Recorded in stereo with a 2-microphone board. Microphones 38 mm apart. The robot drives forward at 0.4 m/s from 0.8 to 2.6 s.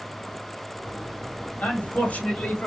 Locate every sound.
1.6 s a man speaking: 40° left (ahead or behind), 1.4 m